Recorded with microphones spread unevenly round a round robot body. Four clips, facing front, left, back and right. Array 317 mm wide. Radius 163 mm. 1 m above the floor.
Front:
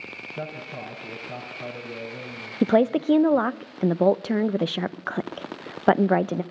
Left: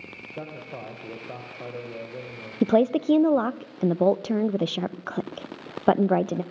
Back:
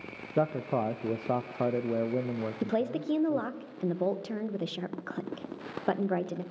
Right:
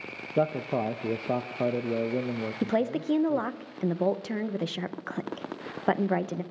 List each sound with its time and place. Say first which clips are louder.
0.4 s a man speaking: right 11 dB, back 8 dB; 115° right, 0.6 m
2.6 s a woman speaking: left 8 dB, front 12 dB; 25° left, 0.6 m